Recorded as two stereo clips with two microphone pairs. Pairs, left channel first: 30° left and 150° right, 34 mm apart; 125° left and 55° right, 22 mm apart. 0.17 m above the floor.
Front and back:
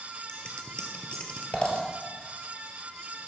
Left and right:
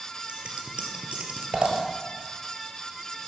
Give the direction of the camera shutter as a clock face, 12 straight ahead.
I don't hear a camera shutter.